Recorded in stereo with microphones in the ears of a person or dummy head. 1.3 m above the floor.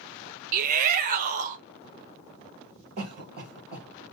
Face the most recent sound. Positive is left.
turn(degrees=-50)  # may be behind; listen again after turning